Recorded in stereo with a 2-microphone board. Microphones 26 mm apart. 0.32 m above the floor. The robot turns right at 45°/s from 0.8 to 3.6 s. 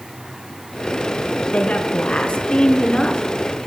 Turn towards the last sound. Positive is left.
turn(degrees=155)